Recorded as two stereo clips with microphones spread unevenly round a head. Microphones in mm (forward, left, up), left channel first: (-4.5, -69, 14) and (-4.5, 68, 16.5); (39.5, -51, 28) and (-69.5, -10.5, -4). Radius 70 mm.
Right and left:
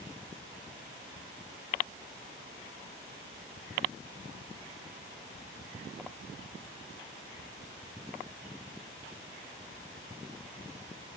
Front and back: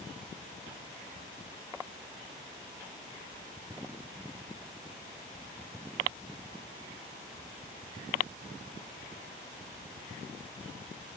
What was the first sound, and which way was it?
Only background noise.